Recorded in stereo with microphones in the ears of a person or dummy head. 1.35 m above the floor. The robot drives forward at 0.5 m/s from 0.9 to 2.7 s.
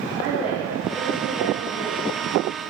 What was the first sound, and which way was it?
A woman speaking, 10° right (ahead or behind).